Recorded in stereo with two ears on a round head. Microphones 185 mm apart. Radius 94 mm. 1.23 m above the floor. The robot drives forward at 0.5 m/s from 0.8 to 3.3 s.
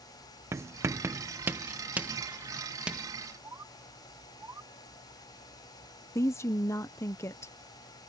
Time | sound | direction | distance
0.5 | writing | 15° right (ahead or behind) | ?
3.4 | a bird | 15° right (ahead or behind) | ?
6.2 | a woman speaking | 15° left (ahead or behind) | ?